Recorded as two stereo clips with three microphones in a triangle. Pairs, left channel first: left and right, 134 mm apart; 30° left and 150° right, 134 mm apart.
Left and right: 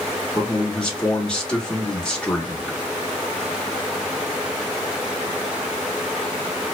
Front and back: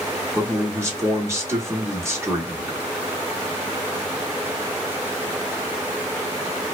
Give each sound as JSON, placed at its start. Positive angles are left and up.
{"t": 0.3, "sound": "a man speaking", "azimuth_deg": 165, "distance_m": 0.8}